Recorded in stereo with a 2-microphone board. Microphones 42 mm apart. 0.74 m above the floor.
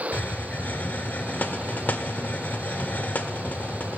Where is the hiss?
45° left (ahead or behind), 0.8 m.